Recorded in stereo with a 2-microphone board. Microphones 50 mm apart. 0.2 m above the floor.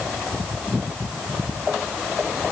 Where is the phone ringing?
I don't hear a phone ringing.